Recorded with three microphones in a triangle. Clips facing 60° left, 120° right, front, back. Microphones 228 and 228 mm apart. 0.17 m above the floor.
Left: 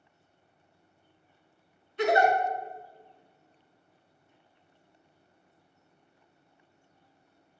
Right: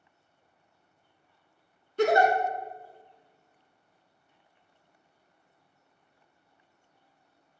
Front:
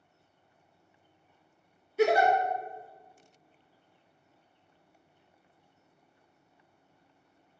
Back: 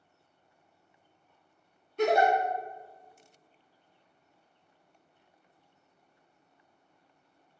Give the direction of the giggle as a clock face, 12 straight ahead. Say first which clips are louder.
Right 2 dB, front 1 dB; 3 o'clock.